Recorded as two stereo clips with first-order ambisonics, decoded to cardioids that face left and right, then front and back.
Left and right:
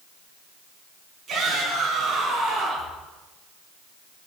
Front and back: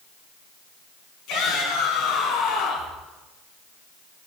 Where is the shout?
25° right, 7 m.